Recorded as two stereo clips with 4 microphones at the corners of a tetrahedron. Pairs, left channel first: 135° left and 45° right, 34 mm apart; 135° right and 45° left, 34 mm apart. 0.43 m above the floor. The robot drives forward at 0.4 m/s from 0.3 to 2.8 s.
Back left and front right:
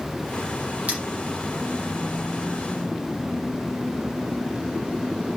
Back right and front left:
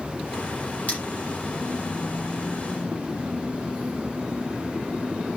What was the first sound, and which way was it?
Cutlery clinking, 90° right.